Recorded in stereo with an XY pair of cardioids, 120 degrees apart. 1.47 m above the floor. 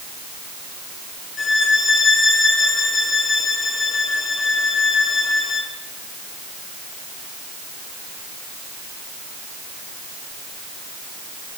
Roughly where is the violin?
Ahead left.